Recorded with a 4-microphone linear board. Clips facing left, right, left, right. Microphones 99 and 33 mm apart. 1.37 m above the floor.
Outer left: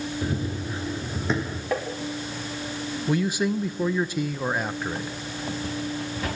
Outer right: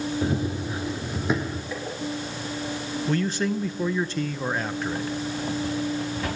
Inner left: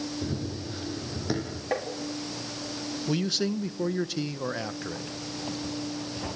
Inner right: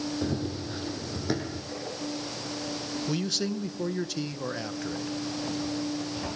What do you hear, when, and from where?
0.2 s running footsteps: 20° right (ahead or behind), 3 m; by 1.6 s centre (ahead or behind), 4 m
1.7 s tapping: 70° left (ahead or behind), 3 m
3.1 s a man speaking: 10° left (ahead or behind), 0.8 m